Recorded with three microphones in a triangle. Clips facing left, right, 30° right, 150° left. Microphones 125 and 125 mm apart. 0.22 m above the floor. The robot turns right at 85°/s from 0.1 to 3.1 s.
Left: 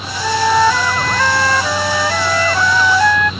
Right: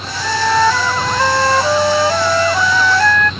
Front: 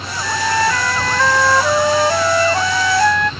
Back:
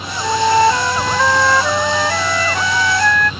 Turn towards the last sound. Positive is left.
turn(degrees=25)